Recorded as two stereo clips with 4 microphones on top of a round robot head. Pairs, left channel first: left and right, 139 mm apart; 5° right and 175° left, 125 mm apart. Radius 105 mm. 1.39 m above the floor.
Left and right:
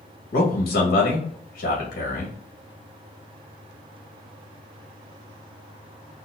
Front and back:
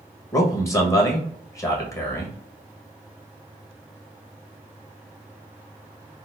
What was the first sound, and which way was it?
A man speaking, 60° left.